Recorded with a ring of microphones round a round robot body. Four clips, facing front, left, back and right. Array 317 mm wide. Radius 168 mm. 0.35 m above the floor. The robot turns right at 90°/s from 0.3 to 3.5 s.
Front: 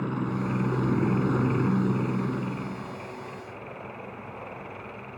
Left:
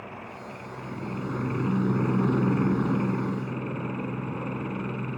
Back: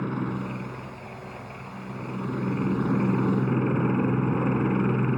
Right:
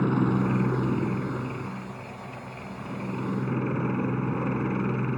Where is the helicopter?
90° right; by 5.2 s 165° right.